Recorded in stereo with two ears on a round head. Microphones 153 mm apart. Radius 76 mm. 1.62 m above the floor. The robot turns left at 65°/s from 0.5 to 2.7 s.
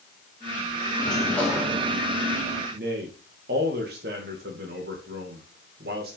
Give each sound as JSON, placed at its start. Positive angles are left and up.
{"t": 1.0, "sound": "a sliding door", "azimuth_deg": 35, "distance_m": 3.0}
{"t": 2.7, "sound": "a man speaking", "side_deg": -60, "distance_m": 2.5}